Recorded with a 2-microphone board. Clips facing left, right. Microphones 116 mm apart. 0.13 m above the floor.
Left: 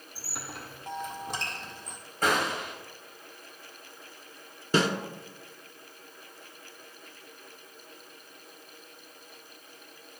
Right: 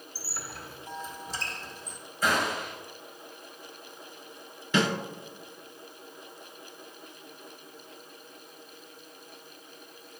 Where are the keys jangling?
I don't hear keys jangling.